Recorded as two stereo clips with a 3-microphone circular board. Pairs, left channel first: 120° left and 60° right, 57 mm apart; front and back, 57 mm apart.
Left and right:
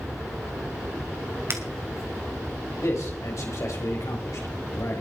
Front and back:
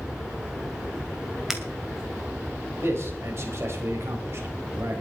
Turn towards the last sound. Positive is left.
turn(degrees=140)